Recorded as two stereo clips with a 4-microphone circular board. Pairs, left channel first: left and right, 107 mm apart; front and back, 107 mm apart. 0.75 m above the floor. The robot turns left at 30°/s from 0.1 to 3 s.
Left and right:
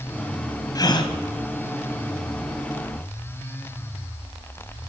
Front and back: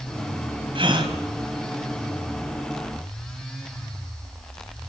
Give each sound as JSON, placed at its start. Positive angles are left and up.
{"t": 0.8, "sound": "a gasp", "azimuth_deg": 145, "distance_m": 2.5}